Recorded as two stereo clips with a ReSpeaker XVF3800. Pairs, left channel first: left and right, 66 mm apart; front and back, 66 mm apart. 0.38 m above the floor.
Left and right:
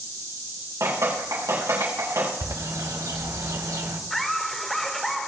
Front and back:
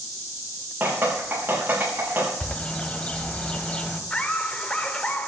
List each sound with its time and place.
0.8 s dripping: 120° right, 6.5 m
2.4 s a bird: 70° right, 1.5 m
4.1 s laughter: 5° left, 0.9 m